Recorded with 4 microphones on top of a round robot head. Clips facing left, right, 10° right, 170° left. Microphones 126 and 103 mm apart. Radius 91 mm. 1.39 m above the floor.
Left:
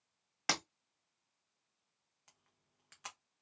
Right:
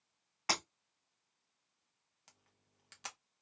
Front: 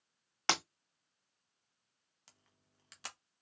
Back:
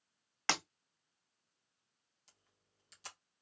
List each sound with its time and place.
0.5 s breaking glass: 60° left, 2 m
2.3 s a camera shutter: 30° right, 0.6 m